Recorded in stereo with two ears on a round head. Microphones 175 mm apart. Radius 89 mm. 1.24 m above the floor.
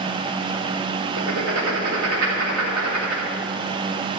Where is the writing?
85° right, 3.5 m.